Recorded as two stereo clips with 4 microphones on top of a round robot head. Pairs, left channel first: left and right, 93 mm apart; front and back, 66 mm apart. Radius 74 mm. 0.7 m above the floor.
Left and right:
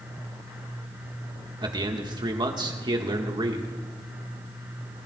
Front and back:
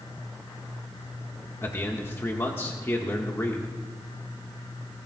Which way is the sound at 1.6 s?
55° right.